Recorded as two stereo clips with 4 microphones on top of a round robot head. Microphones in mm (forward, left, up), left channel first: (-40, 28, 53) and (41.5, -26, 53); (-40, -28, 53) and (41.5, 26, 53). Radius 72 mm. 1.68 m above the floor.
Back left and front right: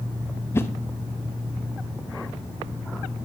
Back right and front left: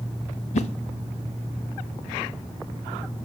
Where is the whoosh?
145° right, 1.0 m.